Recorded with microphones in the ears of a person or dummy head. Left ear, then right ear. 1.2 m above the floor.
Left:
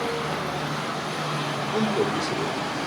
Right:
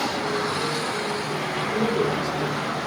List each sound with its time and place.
1.7 s a man speaking: 65° left (ahead or behind), 3 m